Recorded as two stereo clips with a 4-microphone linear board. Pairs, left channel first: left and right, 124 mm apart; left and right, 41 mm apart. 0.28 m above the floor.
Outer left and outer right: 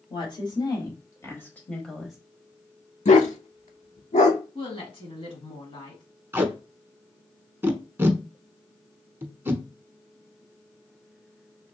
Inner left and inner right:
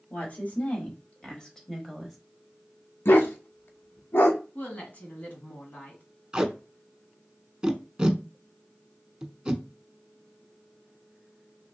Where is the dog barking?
70° left (ahead or behind), 0.7 m.